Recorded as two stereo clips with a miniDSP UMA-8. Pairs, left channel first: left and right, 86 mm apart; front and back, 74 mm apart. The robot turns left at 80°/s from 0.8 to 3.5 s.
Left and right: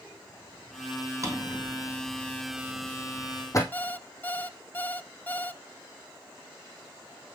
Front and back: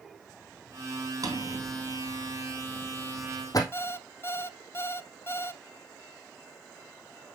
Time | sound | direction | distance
1.2 | a drawer | 140° right | 2 m
3.7 | an alarm clock | 35° left | 0.5 m